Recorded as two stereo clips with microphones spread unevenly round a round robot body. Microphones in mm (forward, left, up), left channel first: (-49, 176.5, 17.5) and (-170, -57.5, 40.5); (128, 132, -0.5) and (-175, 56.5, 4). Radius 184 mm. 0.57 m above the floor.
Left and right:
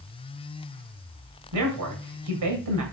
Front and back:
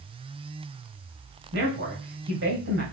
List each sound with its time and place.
1.5 s a man speaking: 105° right, 2.5 m